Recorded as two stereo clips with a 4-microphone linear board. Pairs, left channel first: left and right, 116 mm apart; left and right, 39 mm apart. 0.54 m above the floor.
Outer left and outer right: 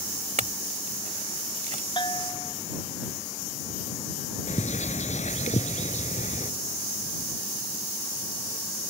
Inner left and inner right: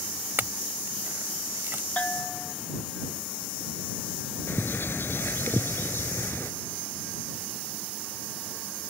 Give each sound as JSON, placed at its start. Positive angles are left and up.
{"t": 0.4, "sound": "a clink", "side_deg": -75}
{"t": 2.0, "sound": "a bell", "side_deg": 40}
{"t": 4.5, "sound": "a bird", "side_deg": 80}